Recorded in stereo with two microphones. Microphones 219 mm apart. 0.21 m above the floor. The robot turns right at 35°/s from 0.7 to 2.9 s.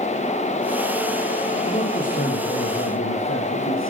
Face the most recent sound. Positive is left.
turn(degrees=70)